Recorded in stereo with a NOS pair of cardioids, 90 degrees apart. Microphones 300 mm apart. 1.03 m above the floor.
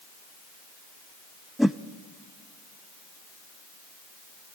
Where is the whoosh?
Straight ahead, 0.7 m.